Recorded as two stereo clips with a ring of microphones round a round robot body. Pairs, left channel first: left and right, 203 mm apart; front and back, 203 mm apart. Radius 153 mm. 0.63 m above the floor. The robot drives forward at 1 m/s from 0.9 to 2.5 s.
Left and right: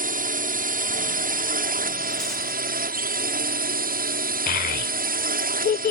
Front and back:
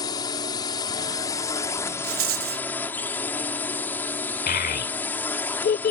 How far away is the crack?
I don't hear a crack.